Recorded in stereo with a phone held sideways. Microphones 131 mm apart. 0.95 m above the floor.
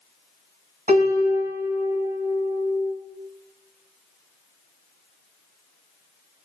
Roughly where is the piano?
Right.